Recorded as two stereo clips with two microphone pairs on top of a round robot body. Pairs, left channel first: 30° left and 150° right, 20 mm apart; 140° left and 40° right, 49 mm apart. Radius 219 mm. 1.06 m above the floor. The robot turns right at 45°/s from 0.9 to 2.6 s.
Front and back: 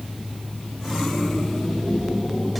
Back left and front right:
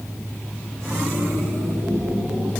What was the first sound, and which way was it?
Only background noise.